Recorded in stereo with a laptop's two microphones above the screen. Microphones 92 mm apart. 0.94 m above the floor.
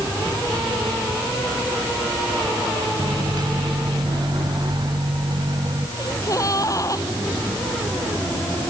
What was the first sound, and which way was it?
A microwave, 55° right (ahead or behind).